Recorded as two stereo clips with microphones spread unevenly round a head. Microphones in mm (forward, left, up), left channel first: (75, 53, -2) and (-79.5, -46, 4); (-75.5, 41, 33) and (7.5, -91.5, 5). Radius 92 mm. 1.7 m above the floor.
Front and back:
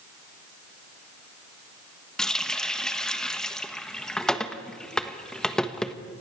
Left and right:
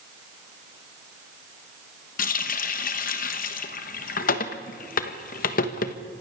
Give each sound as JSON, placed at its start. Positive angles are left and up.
{"t": 2.2, "sound": "a running tap", "azimuth_deg": 120, "distance_m": 1.3}